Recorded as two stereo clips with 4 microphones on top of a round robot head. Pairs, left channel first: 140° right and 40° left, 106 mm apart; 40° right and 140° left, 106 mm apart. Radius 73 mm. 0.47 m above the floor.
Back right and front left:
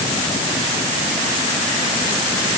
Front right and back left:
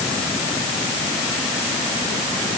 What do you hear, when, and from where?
Only background noise.